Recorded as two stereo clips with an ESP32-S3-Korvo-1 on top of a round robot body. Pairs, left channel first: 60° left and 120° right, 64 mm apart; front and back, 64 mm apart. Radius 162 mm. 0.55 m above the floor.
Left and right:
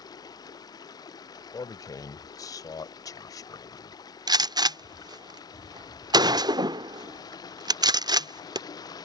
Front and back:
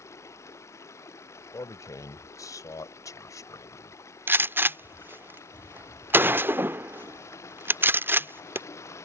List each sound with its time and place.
0.0 s running water: 45° left
1.5 s a man speaking: 35° left
4.3 s a gunshot: 120° right